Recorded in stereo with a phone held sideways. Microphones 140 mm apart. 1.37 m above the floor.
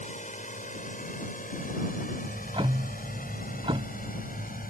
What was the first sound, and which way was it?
A drone, 60° left (ahead or behind).